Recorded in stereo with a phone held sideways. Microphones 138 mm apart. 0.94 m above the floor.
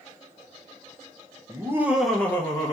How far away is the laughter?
About 0.6 m.